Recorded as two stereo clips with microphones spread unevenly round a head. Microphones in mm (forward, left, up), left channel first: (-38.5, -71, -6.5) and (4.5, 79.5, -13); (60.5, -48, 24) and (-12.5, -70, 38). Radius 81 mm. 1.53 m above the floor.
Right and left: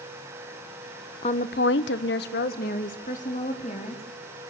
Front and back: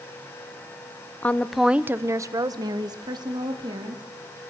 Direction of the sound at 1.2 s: 50° right.